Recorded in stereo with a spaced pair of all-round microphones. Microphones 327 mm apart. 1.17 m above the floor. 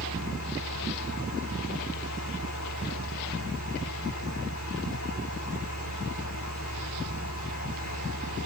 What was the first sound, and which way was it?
A fan, 60° left (ahead or behind).